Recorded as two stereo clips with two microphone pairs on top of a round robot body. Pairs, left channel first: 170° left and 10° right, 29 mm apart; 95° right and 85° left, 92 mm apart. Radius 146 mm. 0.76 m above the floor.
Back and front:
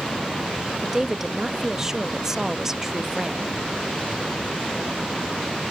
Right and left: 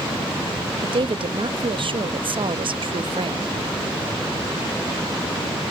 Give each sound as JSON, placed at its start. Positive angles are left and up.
{"t": 0.8, "sound": "a woman speaking", "azimuth_deg": 70}